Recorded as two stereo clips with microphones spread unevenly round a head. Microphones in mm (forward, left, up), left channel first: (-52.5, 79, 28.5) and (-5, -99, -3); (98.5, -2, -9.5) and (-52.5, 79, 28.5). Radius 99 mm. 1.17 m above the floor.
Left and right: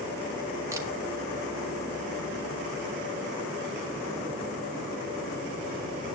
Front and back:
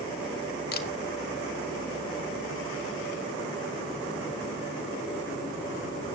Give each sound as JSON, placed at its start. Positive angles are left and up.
{"t": 0.7, "sound": "a camera shutter", "azimuth_deg": 0, "distance_m": 1.7}